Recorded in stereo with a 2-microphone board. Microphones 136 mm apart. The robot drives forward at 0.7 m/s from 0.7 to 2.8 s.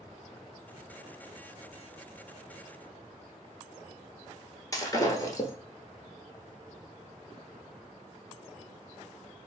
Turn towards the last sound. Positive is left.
turn(degrees=25)  # may be behind; listen again after turning